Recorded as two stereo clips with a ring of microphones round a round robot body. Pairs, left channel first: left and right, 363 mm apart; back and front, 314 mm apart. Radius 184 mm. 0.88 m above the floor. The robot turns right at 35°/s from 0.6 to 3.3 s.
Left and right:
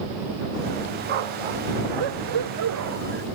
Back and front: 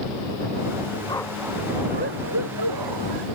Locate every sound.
1.1 s a dog barking: 100° right; by 3.2 s 25° right